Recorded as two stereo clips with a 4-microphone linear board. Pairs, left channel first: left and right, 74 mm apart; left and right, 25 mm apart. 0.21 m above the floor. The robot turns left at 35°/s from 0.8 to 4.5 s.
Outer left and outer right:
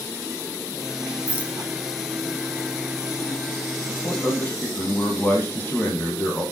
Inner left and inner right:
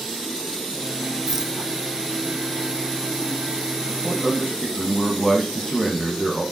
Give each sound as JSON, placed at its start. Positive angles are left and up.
{"t": 1.3, "sound": "a rattle", "side_deg": -15, "distance_m": 1.4}
{"t": 3.9, "sound": "a man speaking", "side_deg": 45, "distance_m": 8.5}